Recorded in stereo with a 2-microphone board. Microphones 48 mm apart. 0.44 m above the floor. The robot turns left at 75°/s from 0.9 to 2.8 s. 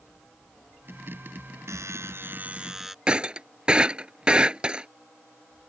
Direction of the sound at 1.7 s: 90° right.